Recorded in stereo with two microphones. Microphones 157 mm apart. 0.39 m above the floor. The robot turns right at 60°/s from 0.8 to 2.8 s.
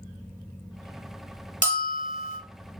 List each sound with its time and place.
1.6 s a bell: 125° left, 1.1 m; by 2.4 s 170° left, 1.1 m